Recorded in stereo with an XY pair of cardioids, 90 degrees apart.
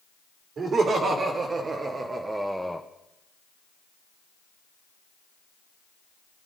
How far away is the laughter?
About 3 m.